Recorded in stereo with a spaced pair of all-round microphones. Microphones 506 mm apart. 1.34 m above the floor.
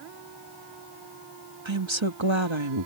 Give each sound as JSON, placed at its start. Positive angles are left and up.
{"t": 1.6, "sound": "a woman speaking", "side_deg": -60}